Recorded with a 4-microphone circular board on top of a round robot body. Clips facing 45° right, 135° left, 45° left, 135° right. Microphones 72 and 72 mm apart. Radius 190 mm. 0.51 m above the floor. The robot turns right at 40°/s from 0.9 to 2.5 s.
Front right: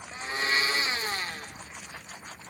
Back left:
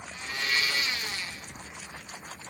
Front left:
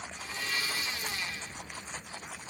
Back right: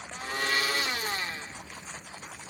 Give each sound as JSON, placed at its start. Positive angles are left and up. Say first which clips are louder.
{"t": 0.1, "sound": "a blender", "louder": "front right 2 dB, back right 8 dB", "azimuth_deg": -105, "distance_m": 0.5}